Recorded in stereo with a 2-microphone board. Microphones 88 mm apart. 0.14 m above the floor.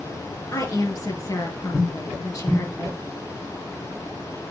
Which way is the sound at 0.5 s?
40° left (ahead or behind).